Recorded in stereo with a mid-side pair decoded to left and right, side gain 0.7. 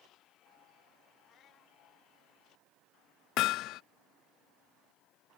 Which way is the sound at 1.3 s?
45° left.